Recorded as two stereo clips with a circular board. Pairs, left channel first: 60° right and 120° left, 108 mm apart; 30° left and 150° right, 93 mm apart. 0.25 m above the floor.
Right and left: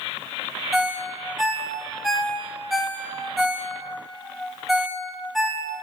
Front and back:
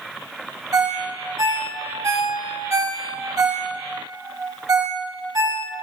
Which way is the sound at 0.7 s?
150° right.